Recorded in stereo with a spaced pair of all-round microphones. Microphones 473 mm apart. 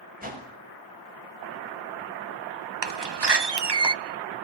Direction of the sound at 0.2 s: 20° right (ahead or behind).